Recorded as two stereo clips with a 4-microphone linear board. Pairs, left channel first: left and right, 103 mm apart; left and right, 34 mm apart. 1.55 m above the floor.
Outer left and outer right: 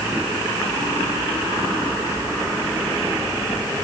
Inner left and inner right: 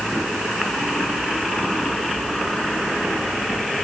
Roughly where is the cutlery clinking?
No cutlery clinking in this recording.